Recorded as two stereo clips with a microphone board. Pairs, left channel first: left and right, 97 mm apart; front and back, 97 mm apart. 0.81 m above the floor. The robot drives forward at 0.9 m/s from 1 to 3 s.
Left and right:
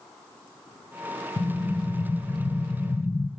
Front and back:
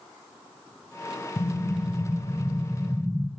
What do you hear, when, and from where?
1.4 s an explosion: 35° left, 1.7 m; by 3.3 s 100° left, 1.1 m